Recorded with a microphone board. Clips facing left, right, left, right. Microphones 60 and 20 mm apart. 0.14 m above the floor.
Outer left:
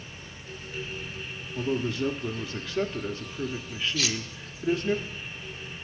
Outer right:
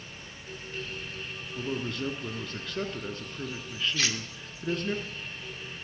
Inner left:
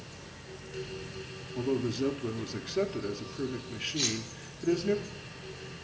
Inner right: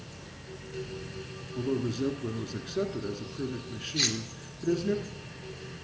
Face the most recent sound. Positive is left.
turn(degrees=-35)  # may be behind; listen again after turning